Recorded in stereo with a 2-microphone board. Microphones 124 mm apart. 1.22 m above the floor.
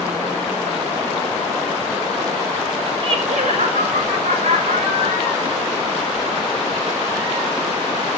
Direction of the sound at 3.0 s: 45° right (ahead or behind).